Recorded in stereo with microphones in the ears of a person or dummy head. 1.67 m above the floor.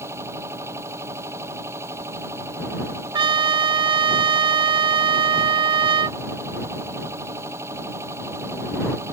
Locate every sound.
0.0 s a machine running: 20° right (ahead or behind)
3.1 s a trumpet: 25° right (ahead or behind)